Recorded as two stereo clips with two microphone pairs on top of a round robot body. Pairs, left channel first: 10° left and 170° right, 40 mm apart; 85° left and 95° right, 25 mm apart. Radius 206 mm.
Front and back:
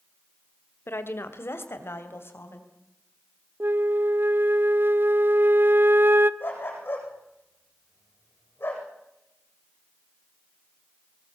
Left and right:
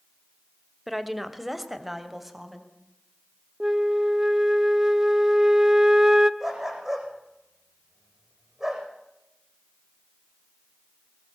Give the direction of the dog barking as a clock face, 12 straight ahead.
1 o'clock.